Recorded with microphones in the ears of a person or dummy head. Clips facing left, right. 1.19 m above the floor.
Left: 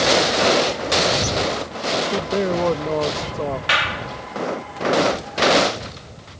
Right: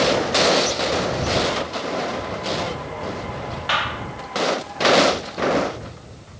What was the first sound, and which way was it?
A man speaking, 70° left (ahead or behind).